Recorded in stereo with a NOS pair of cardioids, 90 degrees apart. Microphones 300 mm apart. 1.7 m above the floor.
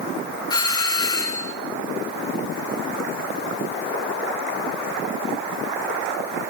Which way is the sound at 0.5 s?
10° left.